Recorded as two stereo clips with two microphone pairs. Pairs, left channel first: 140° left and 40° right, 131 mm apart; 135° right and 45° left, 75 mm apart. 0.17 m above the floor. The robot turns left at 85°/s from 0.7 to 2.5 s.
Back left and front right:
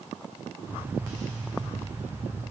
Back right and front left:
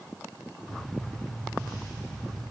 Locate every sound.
Only background noise.